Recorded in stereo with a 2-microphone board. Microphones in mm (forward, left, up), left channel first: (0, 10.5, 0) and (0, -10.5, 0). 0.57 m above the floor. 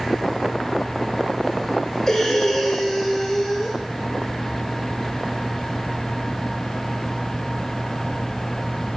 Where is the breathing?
20° left (ahead or behind), 2.5 m.